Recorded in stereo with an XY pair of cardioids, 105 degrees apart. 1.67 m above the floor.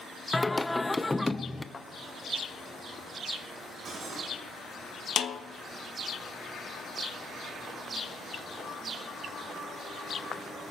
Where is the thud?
25° left, 3.5 m.